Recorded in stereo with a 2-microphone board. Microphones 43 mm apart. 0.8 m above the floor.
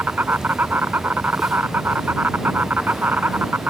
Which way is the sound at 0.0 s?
45° right (ahead or behind).